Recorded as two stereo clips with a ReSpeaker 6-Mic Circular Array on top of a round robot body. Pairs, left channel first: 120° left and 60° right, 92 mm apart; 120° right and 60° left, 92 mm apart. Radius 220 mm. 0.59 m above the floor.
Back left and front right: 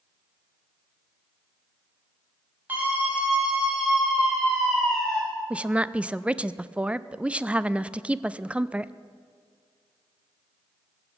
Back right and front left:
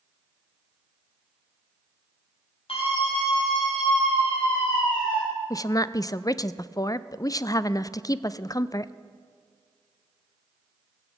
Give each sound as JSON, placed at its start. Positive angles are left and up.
{"t": 2.7, "sound": "a scream", "azimuth_deg": -130, "distance_m": 6.0}
{"t": 5.5, "sound": "a woman speaking", "azimuth_deg": -130, "distance_m": 0.6}